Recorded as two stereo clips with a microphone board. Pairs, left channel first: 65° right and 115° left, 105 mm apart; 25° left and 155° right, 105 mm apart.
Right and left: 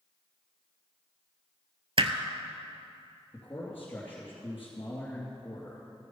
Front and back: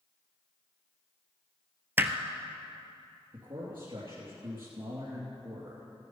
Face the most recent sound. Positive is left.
turn(degrees=-135)